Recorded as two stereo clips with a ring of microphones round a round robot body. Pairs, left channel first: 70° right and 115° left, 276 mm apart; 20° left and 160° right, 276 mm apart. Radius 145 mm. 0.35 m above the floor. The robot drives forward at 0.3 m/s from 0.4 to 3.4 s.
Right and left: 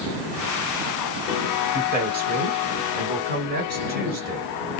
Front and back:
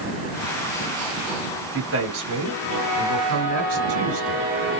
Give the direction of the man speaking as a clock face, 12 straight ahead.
6 o'clock.